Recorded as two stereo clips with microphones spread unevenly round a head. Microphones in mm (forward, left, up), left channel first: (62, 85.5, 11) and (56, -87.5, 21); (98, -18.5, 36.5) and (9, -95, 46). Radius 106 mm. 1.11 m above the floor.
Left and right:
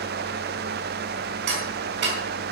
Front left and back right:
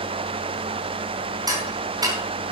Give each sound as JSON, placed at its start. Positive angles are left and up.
{"t": 1.5, "sound": "ticking", "azimuth_deg": -80, "distance_m": 4.5}